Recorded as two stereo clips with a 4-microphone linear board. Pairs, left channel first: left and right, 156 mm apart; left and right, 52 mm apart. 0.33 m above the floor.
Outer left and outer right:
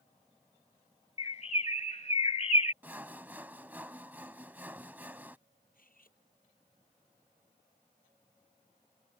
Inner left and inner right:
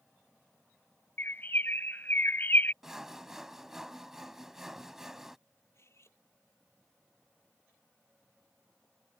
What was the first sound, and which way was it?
A bird, 45° left (ahead or behind).